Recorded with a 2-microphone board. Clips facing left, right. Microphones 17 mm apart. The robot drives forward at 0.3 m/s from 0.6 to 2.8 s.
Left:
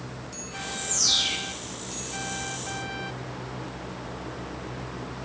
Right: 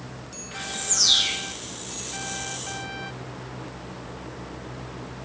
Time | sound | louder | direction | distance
0.5 | a bird | right 3 dB | 40° right (ahead or behind) | 1.0 m